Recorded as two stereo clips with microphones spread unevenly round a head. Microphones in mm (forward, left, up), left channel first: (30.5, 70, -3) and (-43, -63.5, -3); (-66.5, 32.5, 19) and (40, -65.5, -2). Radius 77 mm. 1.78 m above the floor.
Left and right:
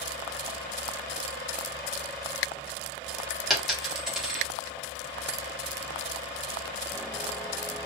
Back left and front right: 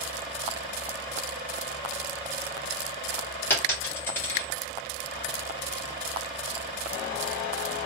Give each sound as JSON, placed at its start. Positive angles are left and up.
{"t": 3.5, "sound": "a dropped coin", "azimuth_deg": 155, "distance_m": 1.1}